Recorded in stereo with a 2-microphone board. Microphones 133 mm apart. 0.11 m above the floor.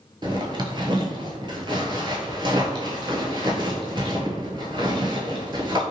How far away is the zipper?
About 0.5 m.